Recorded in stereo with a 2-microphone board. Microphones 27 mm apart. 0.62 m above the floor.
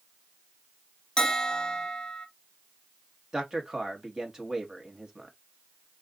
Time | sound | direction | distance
1.2 | a bell | 25° left (ahead or behind) | 0.9 m
3.3 | a man speaking | 25° right (ahead or behind) | 1.1 m